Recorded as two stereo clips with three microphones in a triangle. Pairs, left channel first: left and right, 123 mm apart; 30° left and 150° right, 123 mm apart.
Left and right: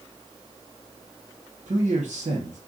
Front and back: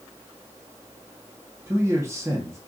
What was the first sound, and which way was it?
A man speaking, 85° right.